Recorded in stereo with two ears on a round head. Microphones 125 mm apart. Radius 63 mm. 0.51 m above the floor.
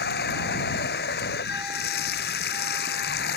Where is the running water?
85° left.